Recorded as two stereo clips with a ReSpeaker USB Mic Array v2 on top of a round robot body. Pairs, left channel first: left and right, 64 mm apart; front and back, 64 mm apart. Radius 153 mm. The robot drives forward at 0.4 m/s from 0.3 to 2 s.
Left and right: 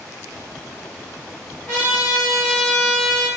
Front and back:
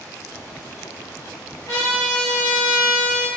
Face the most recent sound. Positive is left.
turn(degrees=45)